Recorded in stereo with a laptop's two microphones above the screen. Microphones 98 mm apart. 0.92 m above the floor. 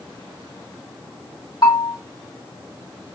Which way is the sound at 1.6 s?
55° left (ahead or behind).